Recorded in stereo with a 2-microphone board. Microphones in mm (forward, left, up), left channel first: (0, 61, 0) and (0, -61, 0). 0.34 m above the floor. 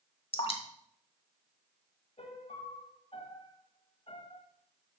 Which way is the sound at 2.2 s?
55° left (ahead or behind).